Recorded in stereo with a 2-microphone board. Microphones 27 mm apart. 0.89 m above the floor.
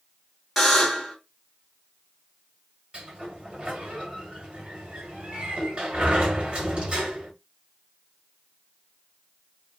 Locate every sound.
0.6 s a buzzer: 5° right (ahead or behind), 1.3 m
2.9 s a sliding door: 35° right (ahead or behind), 1.4 m